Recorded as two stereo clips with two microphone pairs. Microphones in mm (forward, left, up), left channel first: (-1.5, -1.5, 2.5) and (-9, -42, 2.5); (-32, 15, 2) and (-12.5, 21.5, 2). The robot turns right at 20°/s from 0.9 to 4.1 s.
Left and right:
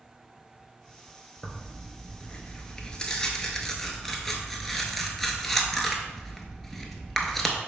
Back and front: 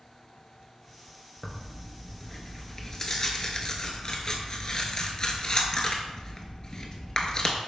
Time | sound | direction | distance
1.4 | tearing paper | 115° left | 0.5 m